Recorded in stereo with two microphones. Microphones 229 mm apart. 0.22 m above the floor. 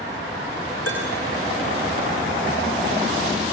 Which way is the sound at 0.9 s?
85° left.